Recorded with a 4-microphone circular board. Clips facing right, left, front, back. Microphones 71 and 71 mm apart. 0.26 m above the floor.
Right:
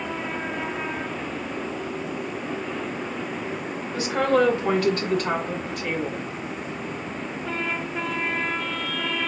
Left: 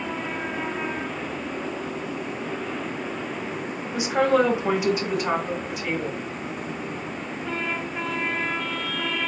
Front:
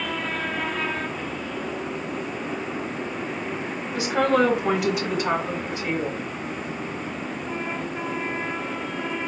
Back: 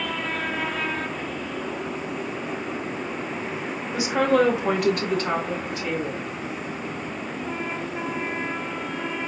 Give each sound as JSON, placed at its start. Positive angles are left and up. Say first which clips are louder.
{"t": 3.9, "sound": "a woman speaking", "louder": "left 1 dB, back 1 dB", "azimuth_deg": 140, "distance_m": 1.2}